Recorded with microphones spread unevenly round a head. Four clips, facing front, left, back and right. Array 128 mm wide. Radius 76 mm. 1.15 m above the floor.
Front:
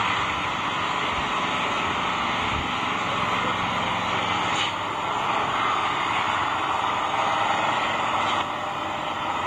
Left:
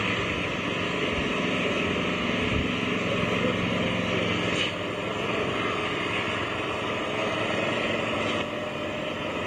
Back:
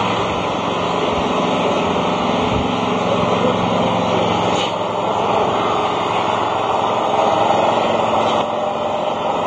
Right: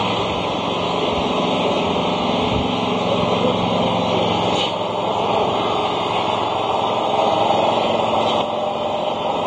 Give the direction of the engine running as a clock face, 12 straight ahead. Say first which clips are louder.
Right 9 dB, back 7 dB; 6 o'clock.